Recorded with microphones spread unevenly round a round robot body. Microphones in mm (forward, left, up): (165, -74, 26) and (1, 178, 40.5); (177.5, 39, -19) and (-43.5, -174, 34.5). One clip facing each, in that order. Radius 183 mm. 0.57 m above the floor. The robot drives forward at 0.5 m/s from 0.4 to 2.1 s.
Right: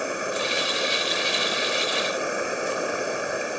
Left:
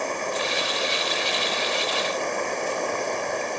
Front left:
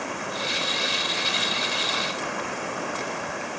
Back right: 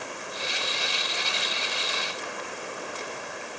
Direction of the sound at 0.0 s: 25° left.